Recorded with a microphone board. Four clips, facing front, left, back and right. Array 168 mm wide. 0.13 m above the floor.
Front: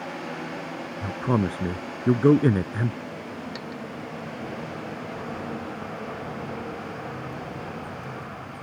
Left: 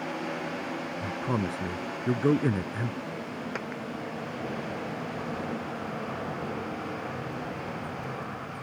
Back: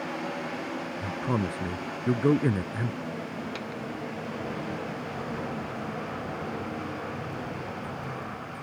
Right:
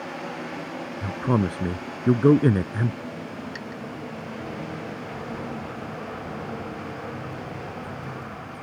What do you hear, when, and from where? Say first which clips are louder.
1.0 s a man speaking: right 7 dB, front 6 dB; 50° right
3.5 s a dropped coin: left 1 dB, even; 95° left